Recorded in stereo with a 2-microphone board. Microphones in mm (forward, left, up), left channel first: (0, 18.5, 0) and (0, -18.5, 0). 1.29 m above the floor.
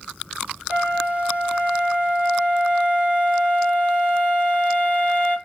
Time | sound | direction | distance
0.7 | a flute | 40° right (ahead or behind) | 1.3 m